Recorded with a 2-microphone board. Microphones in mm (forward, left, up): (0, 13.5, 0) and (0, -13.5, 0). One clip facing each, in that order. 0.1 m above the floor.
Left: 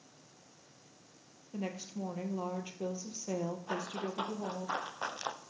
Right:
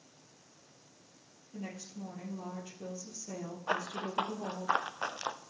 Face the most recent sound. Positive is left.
turn(degrees=-5)  # may be behind; listen again after turning